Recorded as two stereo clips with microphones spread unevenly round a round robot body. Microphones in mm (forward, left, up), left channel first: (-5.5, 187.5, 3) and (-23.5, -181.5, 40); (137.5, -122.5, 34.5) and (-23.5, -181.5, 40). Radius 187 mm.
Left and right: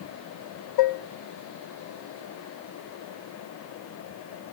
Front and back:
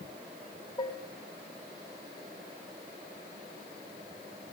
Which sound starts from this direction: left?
Dishes clattering, at 0.8 s.